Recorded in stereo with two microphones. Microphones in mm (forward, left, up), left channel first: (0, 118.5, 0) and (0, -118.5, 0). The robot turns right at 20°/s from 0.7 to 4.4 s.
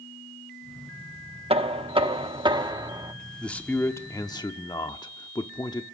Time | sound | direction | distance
1.5 | knocking | 25° right (ahead or behind) | 0.8 m
3.4 | a man speaking | 5° left (ahead or behind) | 0.8 m